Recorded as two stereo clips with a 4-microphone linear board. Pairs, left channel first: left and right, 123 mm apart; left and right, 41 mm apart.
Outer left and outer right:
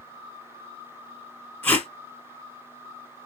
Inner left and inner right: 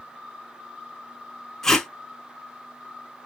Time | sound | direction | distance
1.6 | tape being pulled | 15° left (ahead or behind) | 1.2 m